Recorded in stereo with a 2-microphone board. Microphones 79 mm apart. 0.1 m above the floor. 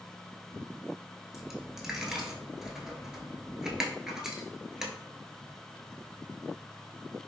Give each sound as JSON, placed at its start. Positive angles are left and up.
{"t": 1.3, "sound": "a dropped coin", "side_deg": -5, "distance_m": 0.7}